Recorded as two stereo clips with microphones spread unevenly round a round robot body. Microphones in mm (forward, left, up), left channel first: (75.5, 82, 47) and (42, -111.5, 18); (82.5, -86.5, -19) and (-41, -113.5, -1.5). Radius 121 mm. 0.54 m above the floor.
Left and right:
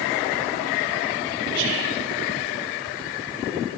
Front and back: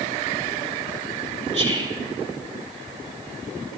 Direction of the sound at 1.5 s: 120° right.